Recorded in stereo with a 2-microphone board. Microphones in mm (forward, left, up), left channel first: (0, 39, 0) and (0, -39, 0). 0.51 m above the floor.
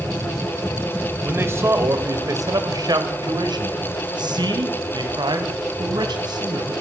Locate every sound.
1.2 s a man speaking: 25° right (ahead or behind), 2.5 m; by 6.7 s 65° right (ahead or behind), 5.5 m